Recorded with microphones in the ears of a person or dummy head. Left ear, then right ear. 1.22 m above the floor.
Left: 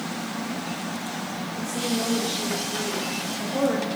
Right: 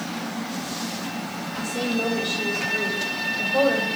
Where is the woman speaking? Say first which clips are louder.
Right 3 dB; 35° right (ahead or behind), 5 m; by 3.9 s 25° right (ahead or behind), 4.5 m.